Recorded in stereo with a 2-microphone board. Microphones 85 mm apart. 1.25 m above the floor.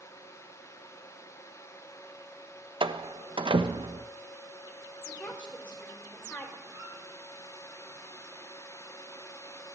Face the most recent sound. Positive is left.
turn(degrees=-40)  # may be behind; listen again after turning